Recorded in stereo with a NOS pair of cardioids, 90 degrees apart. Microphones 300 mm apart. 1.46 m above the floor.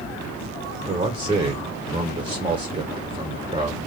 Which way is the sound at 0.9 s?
15° right.